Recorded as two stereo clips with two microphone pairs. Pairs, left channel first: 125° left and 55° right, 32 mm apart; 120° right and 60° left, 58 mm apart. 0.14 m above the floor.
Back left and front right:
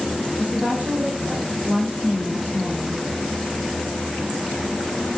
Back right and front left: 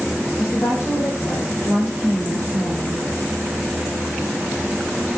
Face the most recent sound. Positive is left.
turn(degrees=-85)